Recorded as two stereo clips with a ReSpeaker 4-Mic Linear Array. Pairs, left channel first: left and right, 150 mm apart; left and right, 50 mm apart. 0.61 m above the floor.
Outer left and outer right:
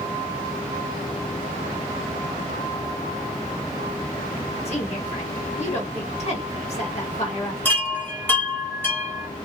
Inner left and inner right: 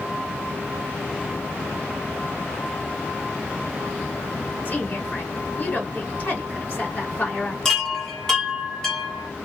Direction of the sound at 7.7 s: 15° left (ahead or behind).